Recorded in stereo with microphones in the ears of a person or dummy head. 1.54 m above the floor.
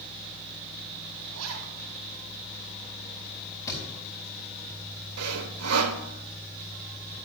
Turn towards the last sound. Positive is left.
turn(degrees=-85)